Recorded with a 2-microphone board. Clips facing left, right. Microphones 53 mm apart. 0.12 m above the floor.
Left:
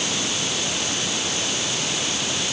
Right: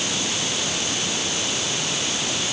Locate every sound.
Only background noise.